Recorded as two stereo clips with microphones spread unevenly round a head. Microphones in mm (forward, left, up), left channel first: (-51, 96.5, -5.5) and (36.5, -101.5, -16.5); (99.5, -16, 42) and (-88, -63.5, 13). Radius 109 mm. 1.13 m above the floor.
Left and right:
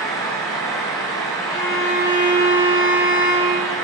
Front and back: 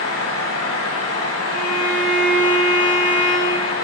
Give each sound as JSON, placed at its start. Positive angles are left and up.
{"t": 0.0, "sound": "a fan", "azimuth_deg": 40, "distance_m": 1.2}
{"t": 1.5, "sound": "a violin", "azimuth_deg": 145, "distance_m": 2.5}